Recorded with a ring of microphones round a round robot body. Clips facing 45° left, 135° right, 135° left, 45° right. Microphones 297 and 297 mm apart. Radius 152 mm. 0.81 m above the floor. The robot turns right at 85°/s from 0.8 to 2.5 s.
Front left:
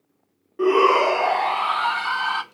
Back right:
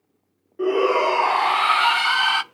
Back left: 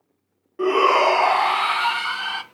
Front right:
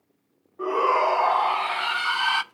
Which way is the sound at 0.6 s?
115° left.